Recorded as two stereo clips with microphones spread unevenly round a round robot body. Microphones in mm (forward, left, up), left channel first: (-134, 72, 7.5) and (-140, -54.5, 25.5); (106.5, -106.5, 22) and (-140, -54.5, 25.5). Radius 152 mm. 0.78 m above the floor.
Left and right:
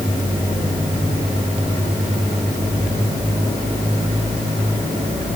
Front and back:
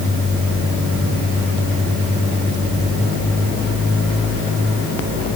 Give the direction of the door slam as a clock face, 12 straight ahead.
No door slam in this recording.